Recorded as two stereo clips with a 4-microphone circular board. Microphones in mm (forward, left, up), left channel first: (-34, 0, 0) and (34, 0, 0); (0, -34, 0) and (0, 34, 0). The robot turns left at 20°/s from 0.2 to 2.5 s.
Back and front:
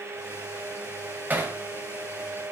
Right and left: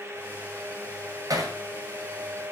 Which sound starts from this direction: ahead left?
Hammering, at 1.3 s.